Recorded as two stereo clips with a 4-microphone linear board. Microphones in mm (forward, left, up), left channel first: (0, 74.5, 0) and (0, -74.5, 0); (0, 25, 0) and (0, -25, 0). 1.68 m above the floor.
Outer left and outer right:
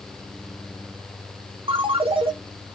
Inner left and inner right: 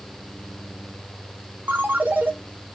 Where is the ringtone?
35° right (ahead or behind), 0.7 m.